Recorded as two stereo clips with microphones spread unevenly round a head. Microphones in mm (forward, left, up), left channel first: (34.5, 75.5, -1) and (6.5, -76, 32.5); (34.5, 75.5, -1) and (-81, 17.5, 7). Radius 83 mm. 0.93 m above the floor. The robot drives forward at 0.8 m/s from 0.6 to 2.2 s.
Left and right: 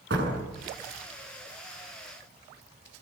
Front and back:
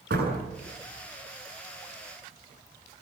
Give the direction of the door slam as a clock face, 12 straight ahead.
4 o'clock.